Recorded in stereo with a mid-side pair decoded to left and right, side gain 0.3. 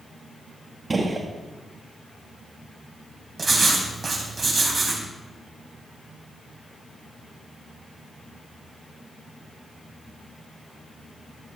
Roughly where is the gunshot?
Ahead right.